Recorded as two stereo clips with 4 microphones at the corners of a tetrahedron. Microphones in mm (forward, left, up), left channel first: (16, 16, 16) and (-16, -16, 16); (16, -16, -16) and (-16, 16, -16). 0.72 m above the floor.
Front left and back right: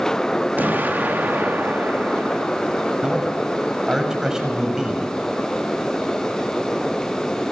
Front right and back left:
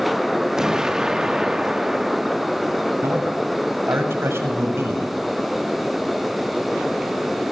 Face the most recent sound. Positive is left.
turn(degrees=150)